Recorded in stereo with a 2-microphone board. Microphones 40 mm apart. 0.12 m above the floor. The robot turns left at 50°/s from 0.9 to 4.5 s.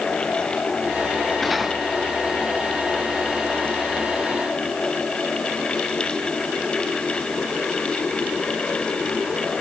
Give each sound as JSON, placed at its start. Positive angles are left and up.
{"t": 1.4, "sound": "cutlery clinking", "side_deg": 5}